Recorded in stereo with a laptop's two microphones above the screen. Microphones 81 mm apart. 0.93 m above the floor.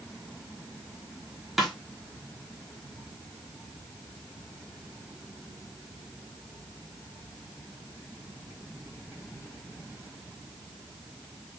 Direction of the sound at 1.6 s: Centre (ahead or behind).